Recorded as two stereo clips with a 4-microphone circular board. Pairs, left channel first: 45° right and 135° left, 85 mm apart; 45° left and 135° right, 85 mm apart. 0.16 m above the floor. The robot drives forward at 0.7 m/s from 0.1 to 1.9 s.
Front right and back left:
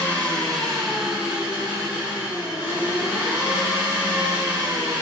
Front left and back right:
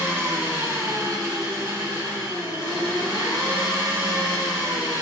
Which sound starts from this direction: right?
An engine running, at 0.0 s.